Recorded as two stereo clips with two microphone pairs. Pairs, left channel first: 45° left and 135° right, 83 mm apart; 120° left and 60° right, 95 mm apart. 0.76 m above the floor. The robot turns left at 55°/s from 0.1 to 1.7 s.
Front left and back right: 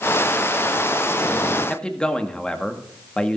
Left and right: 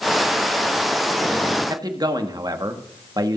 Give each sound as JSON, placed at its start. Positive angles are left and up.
{"t": 1.7, "sound": "a man speaking", "azimuth_deg": -30, "distance_m": 1.3}